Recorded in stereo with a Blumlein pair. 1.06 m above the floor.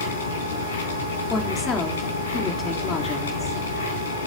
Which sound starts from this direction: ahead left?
A machine running, at 0.0 s.